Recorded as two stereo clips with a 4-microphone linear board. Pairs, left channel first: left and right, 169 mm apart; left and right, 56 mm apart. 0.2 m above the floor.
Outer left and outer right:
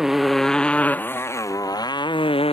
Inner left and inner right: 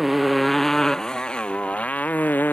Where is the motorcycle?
Centre (ahead or behind); by 2.5 s 35° left (ahead or behind).